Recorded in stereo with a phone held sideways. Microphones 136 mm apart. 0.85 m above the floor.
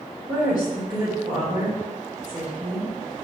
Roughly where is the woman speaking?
Right.